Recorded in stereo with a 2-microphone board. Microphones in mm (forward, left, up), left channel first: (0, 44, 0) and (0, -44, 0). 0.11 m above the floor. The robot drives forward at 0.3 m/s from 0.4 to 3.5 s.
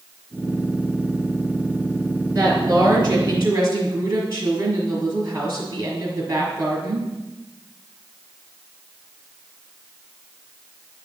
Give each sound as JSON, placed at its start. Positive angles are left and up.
{"t": 2.3, "sound": "a woman speaking", "side_deg": -30, "distance_m": 1.4}